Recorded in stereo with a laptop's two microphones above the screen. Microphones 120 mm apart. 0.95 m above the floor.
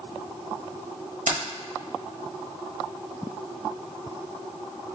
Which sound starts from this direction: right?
Keys jangling, at 1.3 s.